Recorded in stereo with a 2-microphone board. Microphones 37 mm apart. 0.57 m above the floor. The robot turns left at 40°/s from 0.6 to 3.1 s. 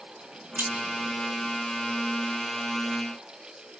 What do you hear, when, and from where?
0.6 s keys jangling: 80° right, 1.2 m; by 0.9 s 70° right (ahead or behind), 1.2 m